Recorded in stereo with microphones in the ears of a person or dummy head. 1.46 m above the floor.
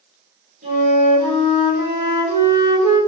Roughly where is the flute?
Right.